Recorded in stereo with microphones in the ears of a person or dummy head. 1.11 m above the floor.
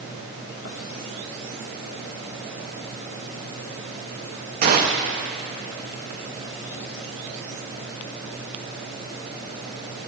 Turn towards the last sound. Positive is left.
turn(degrees=-50)  # may be behind; listen again after turning